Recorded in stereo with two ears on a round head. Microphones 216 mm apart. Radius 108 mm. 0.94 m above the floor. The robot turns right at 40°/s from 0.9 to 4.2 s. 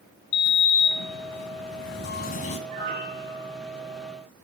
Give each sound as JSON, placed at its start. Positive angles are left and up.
{"t": 0.3, "sound": "a sliding door", "azimuth_deg": 85, "distance_m": 2.0}
{"t": 2.7, "sound": "a piano", "azimuth_deg": -80, "distance_m": 7.0}